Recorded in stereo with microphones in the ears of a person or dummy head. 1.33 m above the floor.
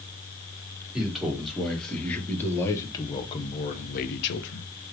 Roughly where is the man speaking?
Centre.